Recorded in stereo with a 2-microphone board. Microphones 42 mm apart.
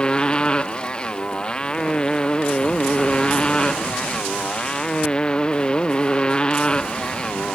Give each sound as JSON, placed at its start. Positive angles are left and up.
{"t": 0.0, "sound": "a motorcycle", "side_deg": 20}